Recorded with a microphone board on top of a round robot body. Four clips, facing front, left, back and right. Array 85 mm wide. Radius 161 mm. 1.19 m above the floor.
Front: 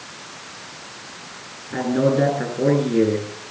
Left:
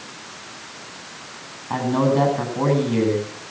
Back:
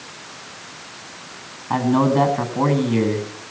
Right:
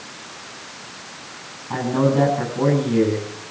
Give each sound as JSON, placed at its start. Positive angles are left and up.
{"t": 1.7, "sound": "a man speaking", "azimuth_deg": 170, "distance_m": 9.5}